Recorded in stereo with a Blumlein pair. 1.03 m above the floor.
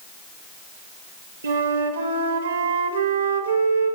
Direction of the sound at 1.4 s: 65° right.